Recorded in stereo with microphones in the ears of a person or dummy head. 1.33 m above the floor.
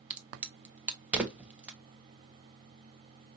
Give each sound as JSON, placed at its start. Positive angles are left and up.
{"t": 0.1, "sound": "a crack", "side_deg": -10, "distance_m": 0.9}